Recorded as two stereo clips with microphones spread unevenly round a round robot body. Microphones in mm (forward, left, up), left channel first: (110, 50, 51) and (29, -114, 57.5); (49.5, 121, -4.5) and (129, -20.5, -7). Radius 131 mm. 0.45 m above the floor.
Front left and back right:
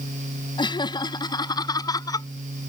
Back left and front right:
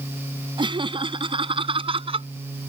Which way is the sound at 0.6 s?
Straight ahead.